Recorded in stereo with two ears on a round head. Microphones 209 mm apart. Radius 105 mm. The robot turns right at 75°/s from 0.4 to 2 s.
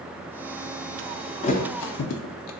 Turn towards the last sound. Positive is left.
turn(degrees=70)  # may be behind; listen again after turning